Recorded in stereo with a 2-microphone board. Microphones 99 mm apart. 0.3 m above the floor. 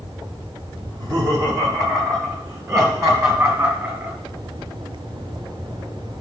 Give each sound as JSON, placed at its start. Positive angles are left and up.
{"t": 0.9, "sound": "laughter", "side_deg": -45, "distance_m": 2.0}